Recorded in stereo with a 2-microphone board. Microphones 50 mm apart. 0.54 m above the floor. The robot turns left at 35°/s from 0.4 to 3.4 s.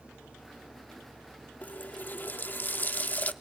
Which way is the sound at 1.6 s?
120° left.